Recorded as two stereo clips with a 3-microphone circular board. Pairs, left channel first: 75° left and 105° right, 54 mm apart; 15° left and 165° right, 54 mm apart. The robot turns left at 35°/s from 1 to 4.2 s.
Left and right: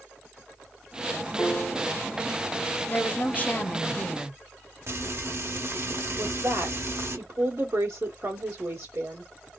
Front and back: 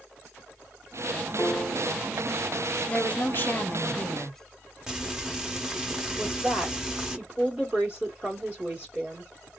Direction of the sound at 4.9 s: 90° right.